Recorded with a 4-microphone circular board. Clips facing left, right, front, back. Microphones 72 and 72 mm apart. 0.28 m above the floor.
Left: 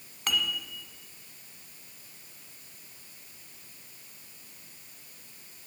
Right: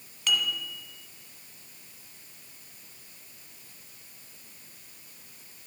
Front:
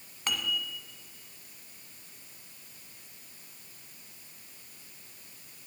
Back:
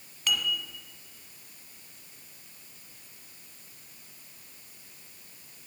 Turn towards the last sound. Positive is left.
turn(degrees=50)